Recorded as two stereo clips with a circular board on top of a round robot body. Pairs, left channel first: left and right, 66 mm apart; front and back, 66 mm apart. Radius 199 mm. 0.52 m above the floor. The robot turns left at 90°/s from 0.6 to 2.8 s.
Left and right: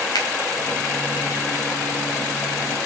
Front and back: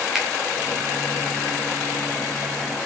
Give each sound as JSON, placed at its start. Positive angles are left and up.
{"t": 0.1, "sound": "a finger snap", "azimuth_deg": 100, "distance_m": 3.0}